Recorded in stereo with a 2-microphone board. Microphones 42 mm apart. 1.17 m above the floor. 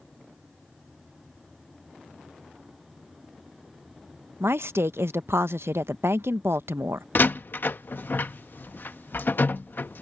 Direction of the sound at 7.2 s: 55° left (ahead or behind).